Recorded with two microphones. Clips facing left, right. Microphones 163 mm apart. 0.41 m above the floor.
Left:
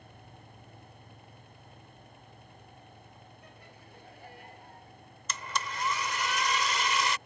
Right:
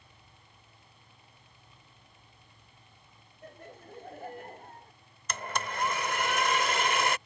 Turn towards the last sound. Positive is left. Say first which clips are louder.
# right 2 dB
turn(degrees=-50)  # may be behind; listen again after turning